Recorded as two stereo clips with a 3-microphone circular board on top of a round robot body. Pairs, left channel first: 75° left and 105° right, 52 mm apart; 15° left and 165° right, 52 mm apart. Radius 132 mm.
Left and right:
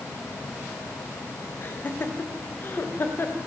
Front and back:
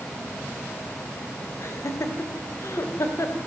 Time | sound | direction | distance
1.6 | laughter | 35° left | 2.5 m